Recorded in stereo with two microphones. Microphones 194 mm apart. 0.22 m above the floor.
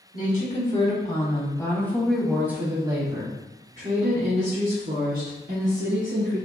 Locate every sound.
0.1 s a woman speaking: 45° left (ahead or behind), 1.6 m; by 6.4 s 65° right (ahead or behind), 2.5 m